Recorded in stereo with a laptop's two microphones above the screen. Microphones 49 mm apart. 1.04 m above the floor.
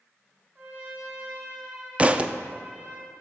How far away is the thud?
About 0.5 m.